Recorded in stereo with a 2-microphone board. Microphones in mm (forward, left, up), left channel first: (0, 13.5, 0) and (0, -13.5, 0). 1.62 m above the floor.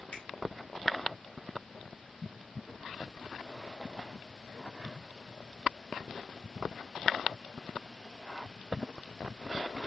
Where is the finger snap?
75° left (ahead or behind), 1.9 m.